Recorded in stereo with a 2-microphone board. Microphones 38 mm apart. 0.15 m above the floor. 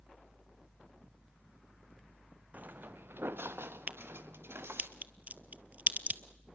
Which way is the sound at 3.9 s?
40° right (ahead or behind).